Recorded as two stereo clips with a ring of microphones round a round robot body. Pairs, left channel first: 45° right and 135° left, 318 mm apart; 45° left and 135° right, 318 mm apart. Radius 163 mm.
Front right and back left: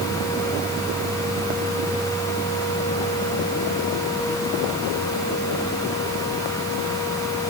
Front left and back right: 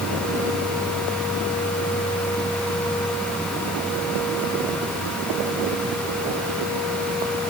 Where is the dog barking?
I don't hear a dog barking.